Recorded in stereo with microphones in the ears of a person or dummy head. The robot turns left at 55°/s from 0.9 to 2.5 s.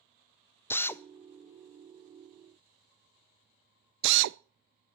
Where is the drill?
15° left (ahead or behind), 0.5 m; by 4.4 s 65° right (ahead or behind), 0.5 m.